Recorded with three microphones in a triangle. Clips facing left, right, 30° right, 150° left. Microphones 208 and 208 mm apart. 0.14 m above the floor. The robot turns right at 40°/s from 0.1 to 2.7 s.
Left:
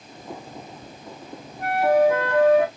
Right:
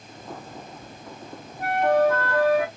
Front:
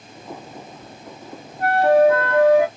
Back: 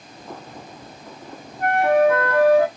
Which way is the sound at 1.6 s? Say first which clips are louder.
Left 2 dB, front 2 dB; 5° right.